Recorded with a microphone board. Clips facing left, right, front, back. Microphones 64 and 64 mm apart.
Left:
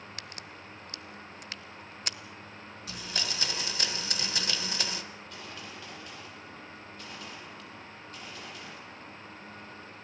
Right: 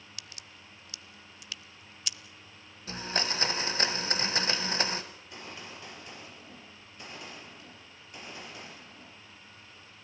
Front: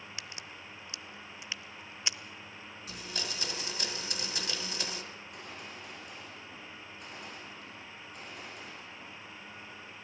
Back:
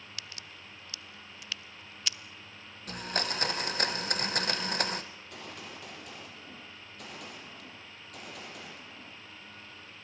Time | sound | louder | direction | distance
0.2 | a crack | left 6 dB, front 2 dB | 60° left | 0.6 m
2.9 | a blender | right 5 dB, back 8 dB | 145° right | 1.8 m
5.1 | a gunshot | left 2 dB, even | 160° right | 7.5 m